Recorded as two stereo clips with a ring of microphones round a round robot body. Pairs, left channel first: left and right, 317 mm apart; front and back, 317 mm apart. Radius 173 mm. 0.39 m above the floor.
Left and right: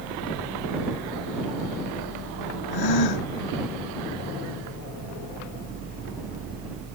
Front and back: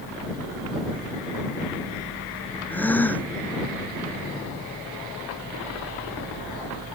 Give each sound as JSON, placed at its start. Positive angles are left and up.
{"t": 2.7, "sound": "a gasp", "azimuth_deg": 85}